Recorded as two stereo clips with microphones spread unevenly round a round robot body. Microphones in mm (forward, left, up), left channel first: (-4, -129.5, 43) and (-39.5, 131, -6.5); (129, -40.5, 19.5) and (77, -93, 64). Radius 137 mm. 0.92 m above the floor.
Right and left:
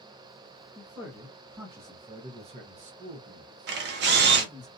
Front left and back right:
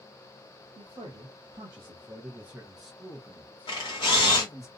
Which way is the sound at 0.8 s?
Straight behind.